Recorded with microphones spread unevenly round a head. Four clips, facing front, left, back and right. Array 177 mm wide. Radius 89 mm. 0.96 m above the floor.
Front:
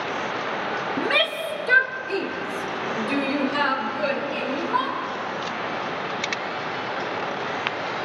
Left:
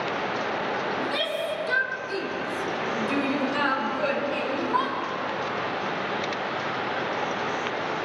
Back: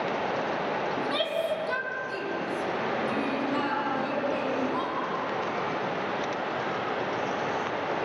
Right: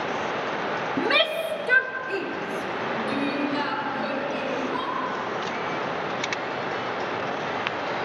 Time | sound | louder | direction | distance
1.0 | a shout | right 4 dB, front 3 dB | 50° right | 2.5 m